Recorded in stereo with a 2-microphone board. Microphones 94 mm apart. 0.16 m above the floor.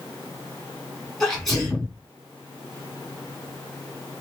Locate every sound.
1.2 s a sneeze: centre (ahead or behind), 1.9 m